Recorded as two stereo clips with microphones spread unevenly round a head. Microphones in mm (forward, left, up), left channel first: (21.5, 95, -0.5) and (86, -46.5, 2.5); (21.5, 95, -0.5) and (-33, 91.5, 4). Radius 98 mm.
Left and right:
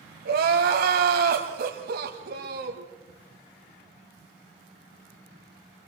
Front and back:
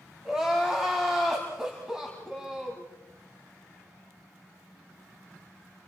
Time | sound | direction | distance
0.2 | crying | 95° right | 2.0 m